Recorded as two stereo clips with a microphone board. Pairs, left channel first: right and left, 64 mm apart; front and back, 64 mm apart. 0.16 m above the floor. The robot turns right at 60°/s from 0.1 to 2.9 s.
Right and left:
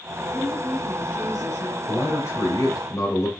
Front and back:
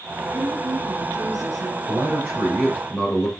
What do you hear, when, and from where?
0.3 s a woman speaking: 135° left, 3 m; by 1.8 s 135° right, 3 m
1.9 s a man speaking: 125° right, 3 m; by 3.3 s 60° right, 3 m